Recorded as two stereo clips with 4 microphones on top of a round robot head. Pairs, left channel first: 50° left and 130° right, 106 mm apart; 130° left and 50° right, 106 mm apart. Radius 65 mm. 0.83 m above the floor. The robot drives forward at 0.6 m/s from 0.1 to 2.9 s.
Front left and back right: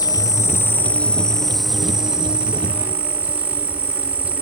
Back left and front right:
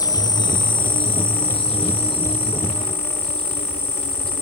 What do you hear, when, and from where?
0.0 s an insect: 90° left, 1.1 m; by 4.4 s 155° left, 2.0 m